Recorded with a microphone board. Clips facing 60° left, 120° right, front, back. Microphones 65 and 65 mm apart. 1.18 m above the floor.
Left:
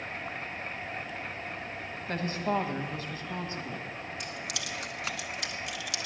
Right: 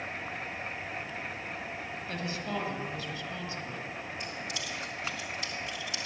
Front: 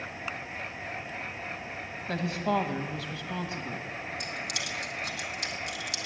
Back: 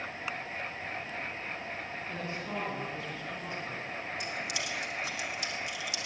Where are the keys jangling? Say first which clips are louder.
Even, even; 35° left, 1.2 m.